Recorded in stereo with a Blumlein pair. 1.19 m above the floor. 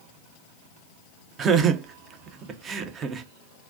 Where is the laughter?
25° right, 0.5 m.